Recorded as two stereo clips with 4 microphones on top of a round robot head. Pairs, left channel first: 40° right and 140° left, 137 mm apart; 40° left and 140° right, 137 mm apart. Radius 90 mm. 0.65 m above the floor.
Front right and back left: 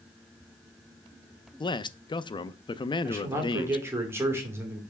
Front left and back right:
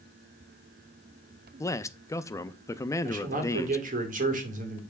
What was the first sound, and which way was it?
A man speaking, 15° right.